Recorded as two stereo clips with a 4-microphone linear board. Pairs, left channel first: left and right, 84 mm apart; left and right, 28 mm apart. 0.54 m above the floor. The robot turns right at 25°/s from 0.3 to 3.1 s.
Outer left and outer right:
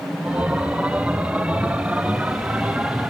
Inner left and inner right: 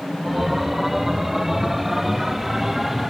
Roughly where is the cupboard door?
I don't hear a cupboard door.